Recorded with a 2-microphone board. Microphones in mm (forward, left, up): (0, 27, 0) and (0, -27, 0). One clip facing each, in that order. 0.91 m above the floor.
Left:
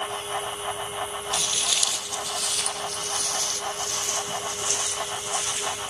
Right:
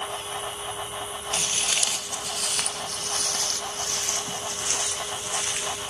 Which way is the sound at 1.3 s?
35° right (ahead or behind).